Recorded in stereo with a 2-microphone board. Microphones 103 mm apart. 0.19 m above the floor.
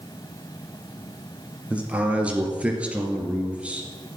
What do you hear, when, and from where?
1.7 s a man speaking: 10° right (ahead or behind), 3.5 m